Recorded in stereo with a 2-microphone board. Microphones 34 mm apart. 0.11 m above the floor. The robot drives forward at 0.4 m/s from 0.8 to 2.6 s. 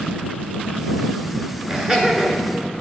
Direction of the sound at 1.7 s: 20° right (ahead or behind).